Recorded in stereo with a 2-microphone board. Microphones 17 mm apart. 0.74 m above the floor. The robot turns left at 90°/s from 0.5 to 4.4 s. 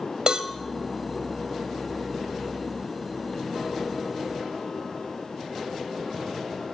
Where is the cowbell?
55° right (ahead or behind), 0.9 m.